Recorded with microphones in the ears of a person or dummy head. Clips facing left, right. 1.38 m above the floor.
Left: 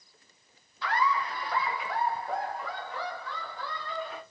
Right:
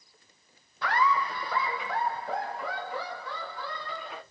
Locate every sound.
0.8 s laughter: 45° right (ahead or behind), 0.6 m; by 4.2 s 55° right (ahead or behind), 3.5 m